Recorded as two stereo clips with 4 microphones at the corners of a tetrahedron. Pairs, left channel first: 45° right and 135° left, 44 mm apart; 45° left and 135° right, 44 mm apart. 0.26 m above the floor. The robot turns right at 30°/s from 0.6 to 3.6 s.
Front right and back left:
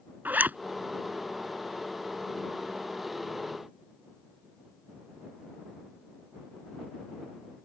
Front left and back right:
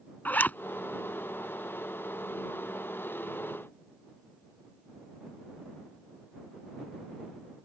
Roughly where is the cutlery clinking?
I don't hear cutlery clinking.